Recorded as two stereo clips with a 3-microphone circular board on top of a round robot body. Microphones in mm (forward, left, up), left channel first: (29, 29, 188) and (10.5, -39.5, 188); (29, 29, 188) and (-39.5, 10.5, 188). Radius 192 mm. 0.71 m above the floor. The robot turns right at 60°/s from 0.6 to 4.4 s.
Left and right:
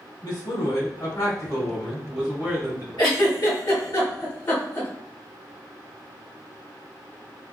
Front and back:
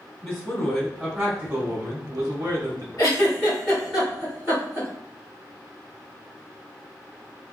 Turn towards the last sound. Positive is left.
turn(degrees=135)